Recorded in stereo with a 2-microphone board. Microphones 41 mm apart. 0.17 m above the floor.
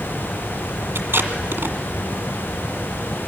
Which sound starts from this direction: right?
Tape being pulled, at 0.9 s.